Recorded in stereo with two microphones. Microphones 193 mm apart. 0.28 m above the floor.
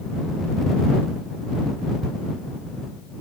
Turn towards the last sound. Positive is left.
No sound to turn to.